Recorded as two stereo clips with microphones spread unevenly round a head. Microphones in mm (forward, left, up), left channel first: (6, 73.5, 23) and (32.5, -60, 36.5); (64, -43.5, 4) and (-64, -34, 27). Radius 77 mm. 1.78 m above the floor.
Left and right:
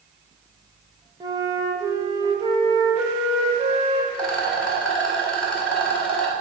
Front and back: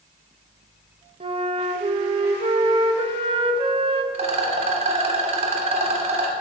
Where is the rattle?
175° right, 1.9 m.